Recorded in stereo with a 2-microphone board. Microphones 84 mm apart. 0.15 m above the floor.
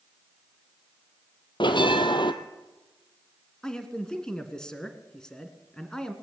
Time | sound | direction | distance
1.6 | a bell | 75° left (ahead or behind) | 1.3 m
3.6 | a man speaking | 10° left (ahead or behind) | 1.9 m